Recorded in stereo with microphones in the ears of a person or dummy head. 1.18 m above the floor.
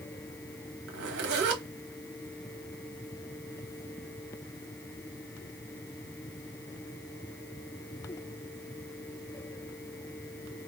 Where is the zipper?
65° right (ahead or behind), 1.0 m.